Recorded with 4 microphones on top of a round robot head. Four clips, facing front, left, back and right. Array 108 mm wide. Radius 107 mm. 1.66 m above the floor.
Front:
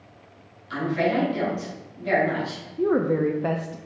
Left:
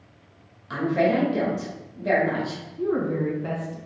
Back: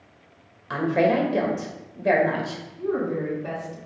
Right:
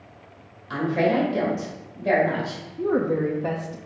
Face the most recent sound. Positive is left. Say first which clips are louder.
# right 2 dB, front 5 dB
turn(degrees=-20)